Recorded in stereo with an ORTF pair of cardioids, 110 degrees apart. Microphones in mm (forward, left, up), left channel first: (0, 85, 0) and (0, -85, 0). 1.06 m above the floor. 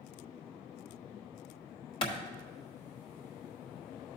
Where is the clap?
30° left, 1.2 m.